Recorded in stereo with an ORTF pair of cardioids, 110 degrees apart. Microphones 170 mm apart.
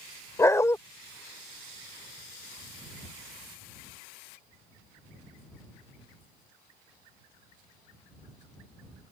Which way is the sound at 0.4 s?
15° left.